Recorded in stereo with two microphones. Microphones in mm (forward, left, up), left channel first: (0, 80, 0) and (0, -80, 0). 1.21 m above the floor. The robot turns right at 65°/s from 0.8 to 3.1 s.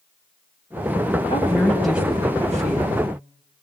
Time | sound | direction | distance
1.3 | a woman speaking | 145° left | 9 m